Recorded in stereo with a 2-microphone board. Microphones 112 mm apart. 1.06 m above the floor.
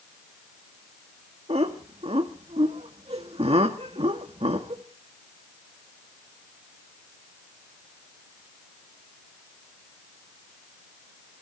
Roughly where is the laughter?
Right.